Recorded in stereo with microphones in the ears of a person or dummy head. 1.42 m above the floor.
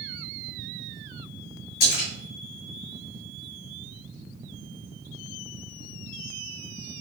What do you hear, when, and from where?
1.8 s a splash: 60° left (ahead or behind), 1.9 m